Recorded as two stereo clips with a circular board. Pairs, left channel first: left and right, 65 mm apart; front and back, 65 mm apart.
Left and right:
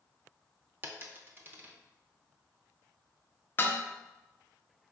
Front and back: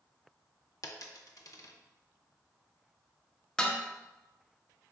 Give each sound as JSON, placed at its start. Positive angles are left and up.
{"t": 0.8, "sound": "a dropped coin", "azimuth_deg": -30, "distance_m": 0.6}
{"t": 3.6, "sound": "dishes clattering", "azimuth_deg": 70, "distance_m": 0.5}